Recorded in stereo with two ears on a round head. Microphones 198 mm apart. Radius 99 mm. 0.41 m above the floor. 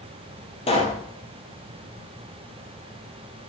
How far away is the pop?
About 3.5 m.